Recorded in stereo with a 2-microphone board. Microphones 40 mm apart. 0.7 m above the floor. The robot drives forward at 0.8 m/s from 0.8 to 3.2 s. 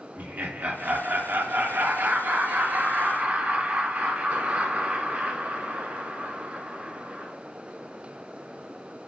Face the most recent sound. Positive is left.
turn(degrees=-40)  # may be behind; listen again after turning